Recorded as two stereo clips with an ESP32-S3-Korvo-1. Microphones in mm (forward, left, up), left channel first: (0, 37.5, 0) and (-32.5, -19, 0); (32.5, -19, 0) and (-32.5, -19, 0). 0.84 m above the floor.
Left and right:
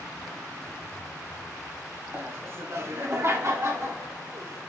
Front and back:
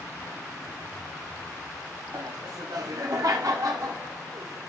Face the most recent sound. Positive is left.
turn(degrees=-160)